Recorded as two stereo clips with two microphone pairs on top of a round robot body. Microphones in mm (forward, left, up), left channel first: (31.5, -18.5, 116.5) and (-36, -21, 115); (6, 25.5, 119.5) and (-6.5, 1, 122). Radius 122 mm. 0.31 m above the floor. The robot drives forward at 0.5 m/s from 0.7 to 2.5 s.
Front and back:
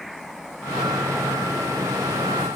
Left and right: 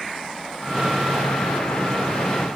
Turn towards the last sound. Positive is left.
No sound to turn to.